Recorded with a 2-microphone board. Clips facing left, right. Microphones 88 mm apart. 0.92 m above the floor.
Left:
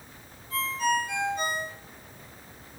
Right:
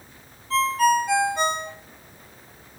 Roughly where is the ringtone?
Right.